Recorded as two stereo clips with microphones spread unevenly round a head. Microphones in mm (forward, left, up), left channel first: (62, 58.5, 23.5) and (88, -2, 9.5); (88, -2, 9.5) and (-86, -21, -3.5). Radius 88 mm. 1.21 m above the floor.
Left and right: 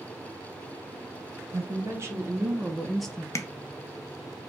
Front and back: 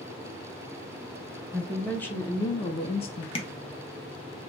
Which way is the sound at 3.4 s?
70° left.